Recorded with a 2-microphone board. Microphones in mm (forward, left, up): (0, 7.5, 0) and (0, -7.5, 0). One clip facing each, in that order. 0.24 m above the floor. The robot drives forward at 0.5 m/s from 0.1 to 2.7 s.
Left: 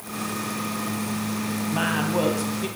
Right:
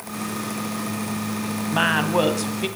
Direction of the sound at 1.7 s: 30° right (ahead or behind).